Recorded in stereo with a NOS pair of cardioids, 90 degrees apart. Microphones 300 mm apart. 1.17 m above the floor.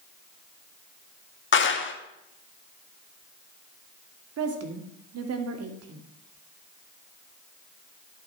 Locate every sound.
1.5 s a clap: 40° left, 1.6 m
4.4 s a woman speaking: 55° right, 2.5 m